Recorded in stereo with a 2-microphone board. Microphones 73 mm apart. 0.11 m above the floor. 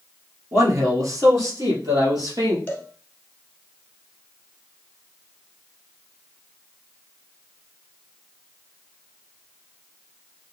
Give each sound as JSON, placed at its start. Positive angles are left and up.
{"t": 0.5, "sound": "a man speaking", "side_deg": -50, "distance_m": 2.0}
{"t": 2.7, "sound": "a cowbell", "side_deg": 20, "distance_m": 1.4}